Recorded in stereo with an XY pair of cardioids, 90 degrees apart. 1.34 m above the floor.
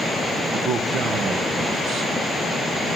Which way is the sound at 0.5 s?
70° right.